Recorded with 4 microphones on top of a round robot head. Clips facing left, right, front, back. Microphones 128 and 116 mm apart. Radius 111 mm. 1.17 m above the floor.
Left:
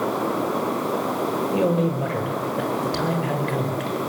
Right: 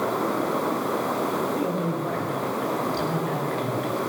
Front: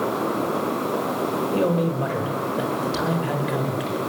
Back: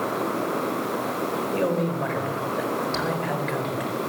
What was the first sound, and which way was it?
A man speaking, 80° left.